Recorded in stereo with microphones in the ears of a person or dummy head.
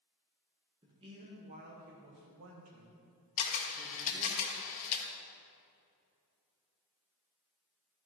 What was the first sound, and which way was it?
A man speaking, 20° right (ahead or behind).